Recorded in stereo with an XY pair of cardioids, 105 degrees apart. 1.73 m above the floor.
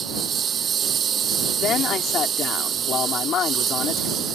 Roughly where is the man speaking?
Ahead left.